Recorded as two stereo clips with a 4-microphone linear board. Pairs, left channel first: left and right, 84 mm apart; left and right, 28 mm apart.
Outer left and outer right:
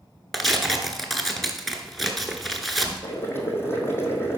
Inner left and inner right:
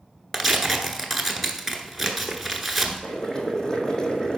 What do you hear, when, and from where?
0.3 s tearing paper: centre (ahead or behind), 1.0 m
3.0 s boiling: 30° left (ahead or behind), 1.4 m